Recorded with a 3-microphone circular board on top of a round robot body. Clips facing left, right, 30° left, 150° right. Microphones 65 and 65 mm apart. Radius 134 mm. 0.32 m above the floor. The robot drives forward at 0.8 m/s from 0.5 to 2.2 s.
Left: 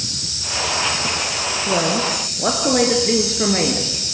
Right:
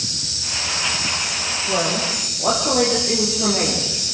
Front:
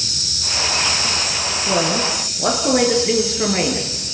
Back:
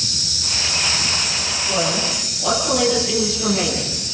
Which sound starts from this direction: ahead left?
A woman speaking, at 1.7 s.